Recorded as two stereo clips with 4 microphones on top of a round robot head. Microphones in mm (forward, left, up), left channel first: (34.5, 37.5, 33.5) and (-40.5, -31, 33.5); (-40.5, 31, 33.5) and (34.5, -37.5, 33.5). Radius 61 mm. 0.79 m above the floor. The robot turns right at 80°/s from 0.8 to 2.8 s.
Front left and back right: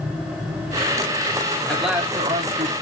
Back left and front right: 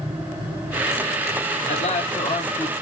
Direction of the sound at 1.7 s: 125° left.